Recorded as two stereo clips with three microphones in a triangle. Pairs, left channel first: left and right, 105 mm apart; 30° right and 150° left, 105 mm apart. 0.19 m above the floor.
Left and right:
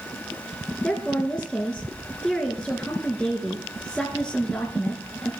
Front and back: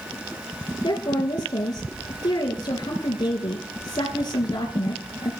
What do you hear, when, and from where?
0.8 s a woman speaking: 10° left, 2.5 m